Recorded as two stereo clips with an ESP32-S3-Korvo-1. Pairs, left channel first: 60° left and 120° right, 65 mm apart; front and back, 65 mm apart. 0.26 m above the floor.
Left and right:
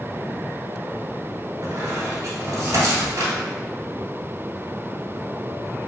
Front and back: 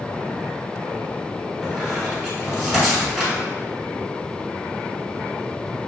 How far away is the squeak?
About 1.1 m.